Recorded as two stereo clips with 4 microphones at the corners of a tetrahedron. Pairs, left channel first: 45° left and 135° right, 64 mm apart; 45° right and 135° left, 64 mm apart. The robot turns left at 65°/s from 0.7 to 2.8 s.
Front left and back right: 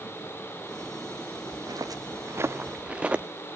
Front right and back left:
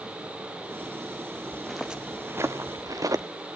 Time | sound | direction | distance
1.5 | footsteps | 125° right | 2.0 m